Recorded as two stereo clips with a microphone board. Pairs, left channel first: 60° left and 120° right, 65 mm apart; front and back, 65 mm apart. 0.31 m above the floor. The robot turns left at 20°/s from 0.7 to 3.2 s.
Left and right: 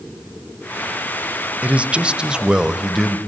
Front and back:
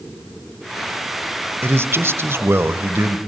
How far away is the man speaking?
About 1.2 m.